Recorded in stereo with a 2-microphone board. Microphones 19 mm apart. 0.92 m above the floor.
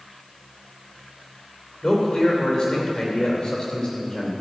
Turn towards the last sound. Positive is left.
turn(degrees=45)  # may be behind; listen again after turning